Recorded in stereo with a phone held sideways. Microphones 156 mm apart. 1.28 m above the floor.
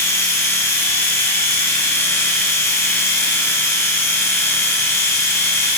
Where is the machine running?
20° left (ahead or behind), 6.5 m.